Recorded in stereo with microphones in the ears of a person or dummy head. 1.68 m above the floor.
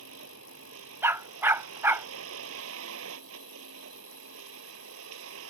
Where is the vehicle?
65° right (ahead or behind).